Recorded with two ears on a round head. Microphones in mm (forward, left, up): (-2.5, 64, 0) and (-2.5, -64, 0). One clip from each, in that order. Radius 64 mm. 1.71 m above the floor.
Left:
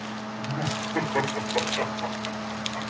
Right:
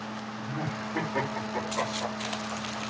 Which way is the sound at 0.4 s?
10° right (ahead or behind).